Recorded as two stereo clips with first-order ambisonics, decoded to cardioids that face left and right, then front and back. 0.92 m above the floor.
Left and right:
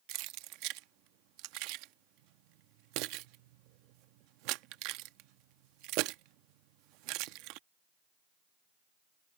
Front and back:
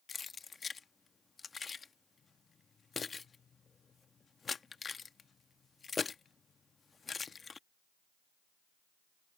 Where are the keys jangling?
75° right.